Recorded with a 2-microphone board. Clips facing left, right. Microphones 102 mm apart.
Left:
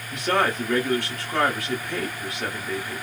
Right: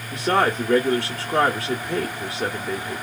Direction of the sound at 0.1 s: 25° right (ahead or behind).